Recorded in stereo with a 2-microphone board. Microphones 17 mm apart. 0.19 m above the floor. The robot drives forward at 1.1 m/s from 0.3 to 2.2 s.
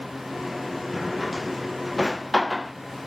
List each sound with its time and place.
0.9 s a drawer: centre (ahead or behind)